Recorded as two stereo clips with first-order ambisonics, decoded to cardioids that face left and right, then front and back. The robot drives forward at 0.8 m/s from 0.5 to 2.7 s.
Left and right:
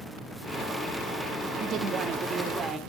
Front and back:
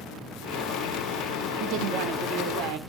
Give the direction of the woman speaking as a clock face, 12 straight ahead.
5 o'clock.